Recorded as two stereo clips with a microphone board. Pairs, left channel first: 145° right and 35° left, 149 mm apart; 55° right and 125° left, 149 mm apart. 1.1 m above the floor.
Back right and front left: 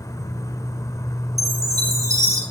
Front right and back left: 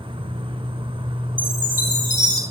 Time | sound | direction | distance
0.0 | an insect | 155° left | 1.0 m
1.4 | a chime | 100° left | 6.5 m